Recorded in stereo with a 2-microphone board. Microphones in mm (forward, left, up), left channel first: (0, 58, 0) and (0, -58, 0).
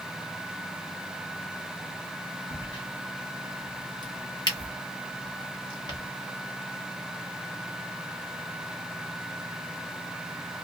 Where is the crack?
40° left (ahead or behind), 1.2 m.